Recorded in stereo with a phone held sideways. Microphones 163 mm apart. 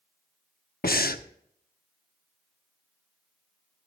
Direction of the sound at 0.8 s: 75° left (ahead or behind).